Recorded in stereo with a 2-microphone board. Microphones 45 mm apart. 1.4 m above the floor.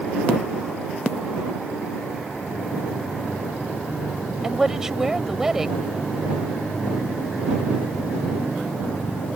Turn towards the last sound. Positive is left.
turn(degrees=-10)  # may be behind; listen again after turning